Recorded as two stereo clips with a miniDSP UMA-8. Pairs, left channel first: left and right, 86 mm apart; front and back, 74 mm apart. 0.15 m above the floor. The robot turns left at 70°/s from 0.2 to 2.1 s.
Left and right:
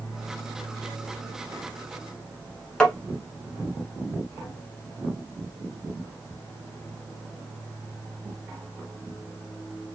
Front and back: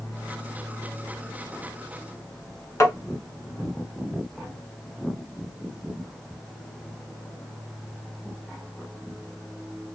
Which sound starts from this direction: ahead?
Tapping, at 2.8 s.